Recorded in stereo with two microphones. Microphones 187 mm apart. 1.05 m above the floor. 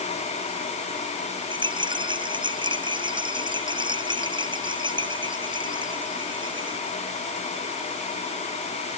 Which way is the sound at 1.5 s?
25° right (ahead or behind).